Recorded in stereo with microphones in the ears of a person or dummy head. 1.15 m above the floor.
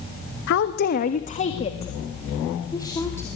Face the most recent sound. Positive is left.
turn(degrees=15)  # may be behind; listen again after turning